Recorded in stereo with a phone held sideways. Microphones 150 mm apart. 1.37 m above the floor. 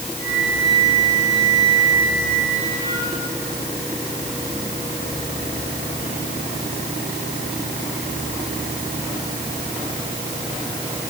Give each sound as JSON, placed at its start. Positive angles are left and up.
{"t": 0.2, "sound": "a flute", "side_deg": 25, "distance_m": 8.0}